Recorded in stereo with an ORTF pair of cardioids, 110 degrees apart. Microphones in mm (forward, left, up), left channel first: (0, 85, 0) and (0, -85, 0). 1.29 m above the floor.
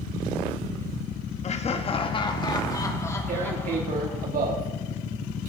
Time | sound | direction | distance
1.4 | laughter | 40° left | 2.0 m
3.3 | tearing paper | 55° right | 3.5 m